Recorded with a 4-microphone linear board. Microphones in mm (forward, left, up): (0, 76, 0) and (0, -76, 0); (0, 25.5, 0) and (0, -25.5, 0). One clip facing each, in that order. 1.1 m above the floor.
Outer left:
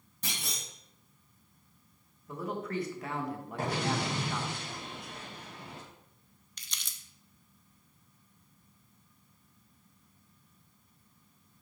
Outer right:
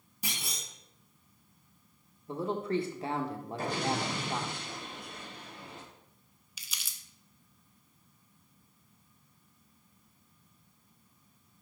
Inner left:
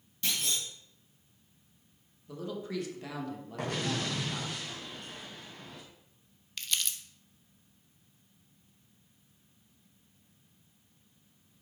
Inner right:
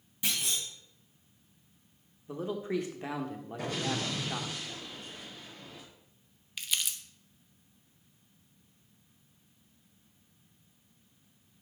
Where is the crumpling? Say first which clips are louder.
Even, even; 5° right (ahead or behind), 0.6 m.